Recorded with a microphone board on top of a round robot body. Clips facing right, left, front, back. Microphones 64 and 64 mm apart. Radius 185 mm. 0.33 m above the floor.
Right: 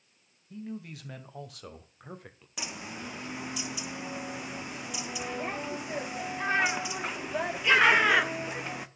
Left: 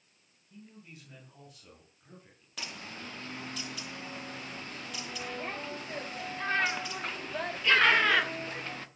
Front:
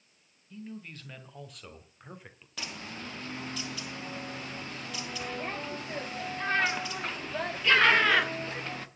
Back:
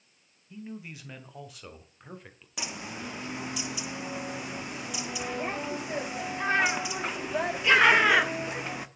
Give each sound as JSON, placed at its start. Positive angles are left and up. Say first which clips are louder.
{"t": 0.5, "sound": "a man speaking", "louder": "right 12 dB, back 2 dB", "azimuth_deg": -110, "distance_m": 2.5}
{"t": 2.6, "sound": "a bird", "louder": "right 3 dB, back 3 dB", "azimuth_deg": -135, "distance_m": 1.5}